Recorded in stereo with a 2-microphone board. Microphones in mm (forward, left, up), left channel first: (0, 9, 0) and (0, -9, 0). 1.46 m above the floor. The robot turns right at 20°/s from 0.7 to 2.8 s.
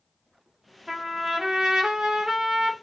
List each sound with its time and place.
0.9 s a trumpet: 155° right, 0.5 m; by 2.7 s 120° right, 0.5 m